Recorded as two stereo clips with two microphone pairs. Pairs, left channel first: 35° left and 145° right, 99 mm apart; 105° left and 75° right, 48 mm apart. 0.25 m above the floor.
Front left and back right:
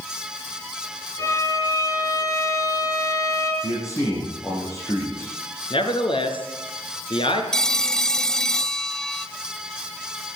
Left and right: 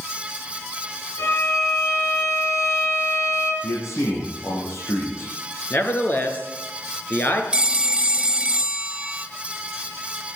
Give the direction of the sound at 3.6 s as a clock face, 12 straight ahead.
9 o'clock.